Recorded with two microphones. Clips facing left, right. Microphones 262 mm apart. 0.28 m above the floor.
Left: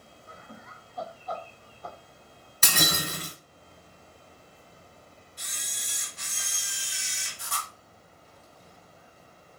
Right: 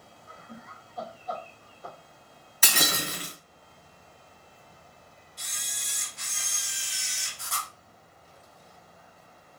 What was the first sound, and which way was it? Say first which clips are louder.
Laughter: right 2 dB; 20° left (ahead or behind).